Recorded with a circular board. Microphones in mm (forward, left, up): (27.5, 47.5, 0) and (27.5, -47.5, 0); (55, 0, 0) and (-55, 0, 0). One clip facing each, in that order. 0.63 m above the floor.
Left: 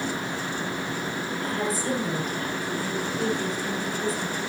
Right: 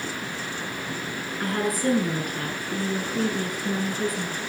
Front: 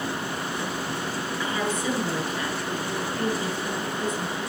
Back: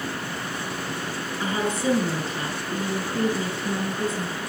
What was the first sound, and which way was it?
A woman speaking, 125° right.